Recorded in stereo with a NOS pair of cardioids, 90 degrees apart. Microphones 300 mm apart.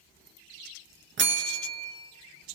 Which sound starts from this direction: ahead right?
A bell, at 1.2 s.